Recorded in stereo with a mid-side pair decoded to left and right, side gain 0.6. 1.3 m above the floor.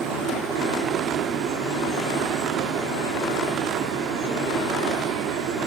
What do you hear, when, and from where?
0.0 s a machine running: 65° right, 0.8 m